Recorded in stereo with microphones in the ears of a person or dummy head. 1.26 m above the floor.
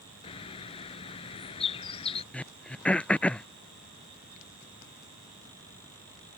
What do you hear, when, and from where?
0.2 s a bird: 30° left (ahead or behind)
2.3 s throat clearing: 5° left (ahead or behind)